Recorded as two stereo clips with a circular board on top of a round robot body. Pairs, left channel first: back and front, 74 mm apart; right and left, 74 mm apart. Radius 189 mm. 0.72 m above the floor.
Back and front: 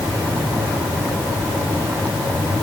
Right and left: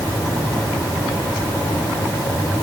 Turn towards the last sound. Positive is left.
No sound to turn to.